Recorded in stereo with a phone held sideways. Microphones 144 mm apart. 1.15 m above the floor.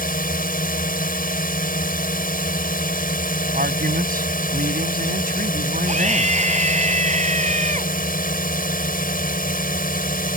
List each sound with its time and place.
0.0 s a drone: 80° left
3.5 s a man speaking: 80° right
5.9 s a scream: 55° right (ahead or behind)